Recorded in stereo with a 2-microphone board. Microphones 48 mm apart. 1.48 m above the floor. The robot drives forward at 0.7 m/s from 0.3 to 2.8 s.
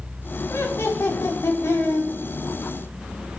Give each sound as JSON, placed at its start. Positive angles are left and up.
{"t": 0.5, "sound": "laughter", "side_deg": 65, "distance_m": 5.5}